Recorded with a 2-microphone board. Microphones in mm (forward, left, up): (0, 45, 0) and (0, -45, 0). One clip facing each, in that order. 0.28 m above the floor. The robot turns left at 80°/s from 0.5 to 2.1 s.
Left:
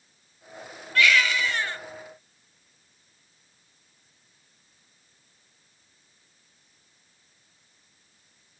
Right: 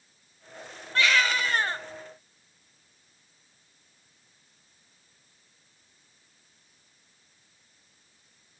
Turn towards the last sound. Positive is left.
turn(degrees=-140)